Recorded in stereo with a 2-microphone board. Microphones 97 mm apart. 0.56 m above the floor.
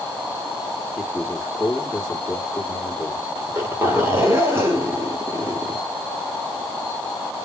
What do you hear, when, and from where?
1.0 s a man speaking: 10° left (ahead or behind), 1.7 m
3.4 s a zipper: 30° right (ahead or behind), 1.7 m